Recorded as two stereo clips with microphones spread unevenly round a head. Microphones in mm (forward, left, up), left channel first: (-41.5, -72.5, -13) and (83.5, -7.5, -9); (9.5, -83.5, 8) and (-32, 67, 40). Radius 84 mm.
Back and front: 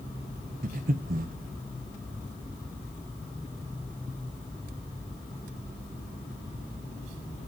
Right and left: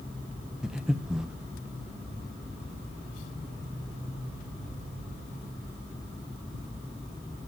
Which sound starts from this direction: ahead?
Breathing, at 0.6 s.